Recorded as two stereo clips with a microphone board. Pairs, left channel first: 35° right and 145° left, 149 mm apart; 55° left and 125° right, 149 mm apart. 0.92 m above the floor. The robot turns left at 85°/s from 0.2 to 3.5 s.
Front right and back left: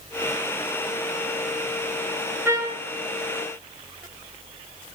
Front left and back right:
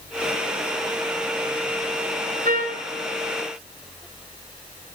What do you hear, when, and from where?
2.5 s a trumpet: 135° right, 5.5 m; by 2.8 s 170° right, 5.5 m